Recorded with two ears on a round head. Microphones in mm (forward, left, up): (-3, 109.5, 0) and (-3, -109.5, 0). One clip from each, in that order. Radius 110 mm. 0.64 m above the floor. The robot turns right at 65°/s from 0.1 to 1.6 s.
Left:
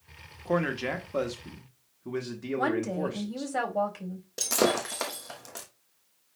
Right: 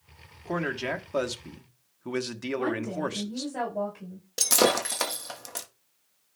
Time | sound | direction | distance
0.5 | a man speaking | 165° left | 0.9 m
2.6 | a woman speaking | 75° left (ahead or behind) | 4 m
4.4 | breaking glass | 25° right (ahead or behind) | 1.1 m